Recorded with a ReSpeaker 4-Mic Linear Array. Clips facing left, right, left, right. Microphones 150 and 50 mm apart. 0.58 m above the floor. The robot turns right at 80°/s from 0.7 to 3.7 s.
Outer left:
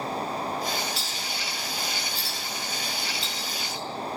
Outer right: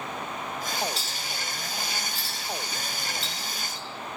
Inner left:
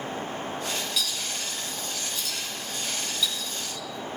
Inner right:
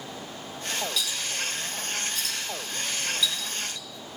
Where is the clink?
5° left (ahead or behind), 4 m; by 3.9 s 35° left (ahead or behind), 4 m.